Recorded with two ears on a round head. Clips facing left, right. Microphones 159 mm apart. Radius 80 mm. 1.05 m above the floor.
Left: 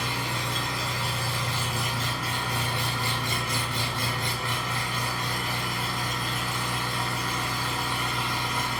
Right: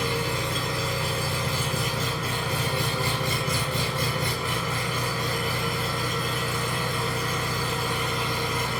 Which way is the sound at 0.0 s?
65° right (ahead or behind).